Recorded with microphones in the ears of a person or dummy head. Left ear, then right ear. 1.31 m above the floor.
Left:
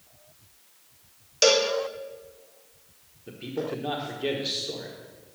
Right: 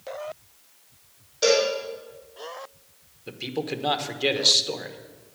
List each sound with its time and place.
1.4 s a cowbell: 65° left (ahead or behind), 1.9 m
3.3 s a man speaking: 40° right (ahead or behind), 1.2 m